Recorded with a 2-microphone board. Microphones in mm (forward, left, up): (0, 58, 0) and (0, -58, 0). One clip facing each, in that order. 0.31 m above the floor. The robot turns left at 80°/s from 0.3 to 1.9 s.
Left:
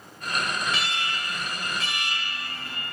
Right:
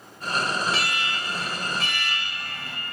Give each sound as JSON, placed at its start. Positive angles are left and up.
{"t": 0.7, "sound": "an alarm", "azimuth_deg": -5, "distance_m": 1.1}